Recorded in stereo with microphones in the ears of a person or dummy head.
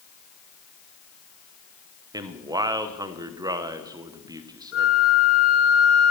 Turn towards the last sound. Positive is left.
turn(degrees=80)